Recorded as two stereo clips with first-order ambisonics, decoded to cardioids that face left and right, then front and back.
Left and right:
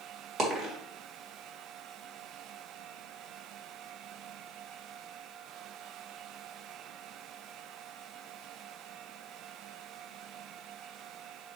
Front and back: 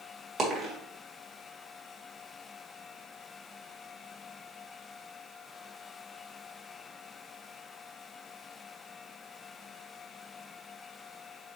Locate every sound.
0.4 s a dropped coin: 135° right, 1.4 m